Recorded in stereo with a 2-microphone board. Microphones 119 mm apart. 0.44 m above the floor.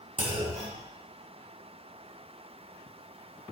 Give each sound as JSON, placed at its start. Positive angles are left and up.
{"t": 0.2, "sound": "a clunk", "side_deg": -70, "distance_m": 0.9}